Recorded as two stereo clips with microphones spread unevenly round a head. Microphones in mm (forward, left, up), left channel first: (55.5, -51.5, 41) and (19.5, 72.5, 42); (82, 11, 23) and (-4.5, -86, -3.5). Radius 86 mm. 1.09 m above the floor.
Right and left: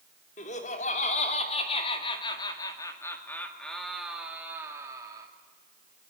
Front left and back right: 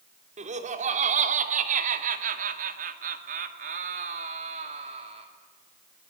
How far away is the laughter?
About 3.5 m.